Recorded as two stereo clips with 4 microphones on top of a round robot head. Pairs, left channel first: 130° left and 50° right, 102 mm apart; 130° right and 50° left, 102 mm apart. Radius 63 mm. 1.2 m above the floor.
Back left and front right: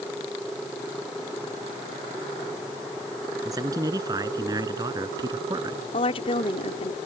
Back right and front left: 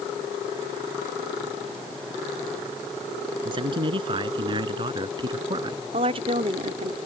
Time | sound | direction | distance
3.4 | a man speaking | 5° left | ?
5.9 | a woman speaking | 90° left | ?